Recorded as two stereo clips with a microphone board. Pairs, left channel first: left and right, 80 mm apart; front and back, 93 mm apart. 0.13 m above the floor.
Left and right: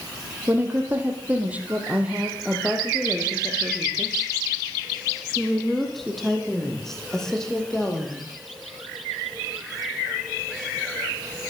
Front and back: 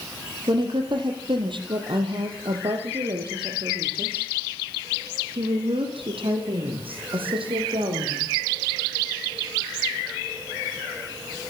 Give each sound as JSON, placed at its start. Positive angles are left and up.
{"t": 0.5, "sound": "a woman speaking", "azimuth_deg": -155, "distance_m": 5.0}